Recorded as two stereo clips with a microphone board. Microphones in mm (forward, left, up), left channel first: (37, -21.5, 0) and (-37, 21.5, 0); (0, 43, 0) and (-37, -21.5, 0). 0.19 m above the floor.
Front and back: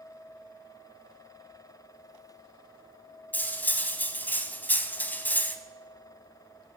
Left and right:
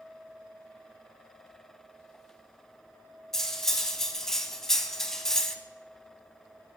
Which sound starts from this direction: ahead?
Cutlery clinking, at 3.3 s.